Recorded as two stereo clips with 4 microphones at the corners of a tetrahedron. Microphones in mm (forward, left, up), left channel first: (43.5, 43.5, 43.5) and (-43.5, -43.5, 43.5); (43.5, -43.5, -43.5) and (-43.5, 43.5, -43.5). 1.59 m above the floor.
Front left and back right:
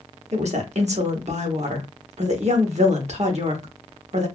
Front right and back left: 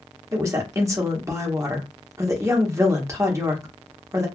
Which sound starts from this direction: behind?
A woman speaking, at 0.3 s.